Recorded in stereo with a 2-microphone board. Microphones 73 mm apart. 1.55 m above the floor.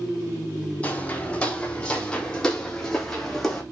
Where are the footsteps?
15° left (ahead or behind), 5 m; by 3.6 s centre (ahead or behind), 5.5 m.